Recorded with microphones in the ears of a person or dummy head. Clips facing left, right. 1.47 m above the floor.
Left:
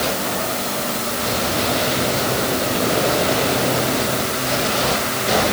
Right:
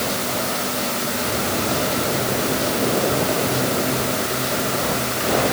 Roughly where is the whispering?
I don't hear whispering.